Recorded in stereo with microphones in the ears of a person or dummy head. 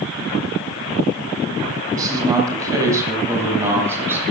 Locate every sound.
1.9 s a man speaking: 20° right (ahead or behind), 9 m; by 4.2 s 10° right (ahead or behind), 8 m